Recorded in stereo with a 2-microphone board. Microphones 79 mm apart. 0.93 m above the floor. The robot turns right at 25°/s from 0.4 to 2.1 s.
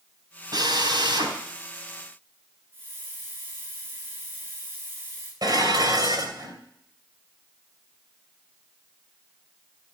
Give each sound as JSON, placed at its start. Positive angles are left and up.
{"t": 0.5, "sound": "a drill", "side_deg": -60, "distance_m": 4.5}
{"t": 2.7, "sound": "a hiss", "side_deg": -30, "distance_m": 7.5}
{"t": 5.4, "sound": "dishes clattering", "side_deg": -60, "distance_m": 3.0}